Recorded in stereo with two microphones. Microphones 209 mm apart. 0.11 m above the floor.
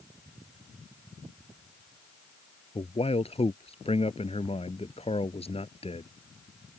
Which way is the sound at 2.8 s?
30° left (ahead or behind).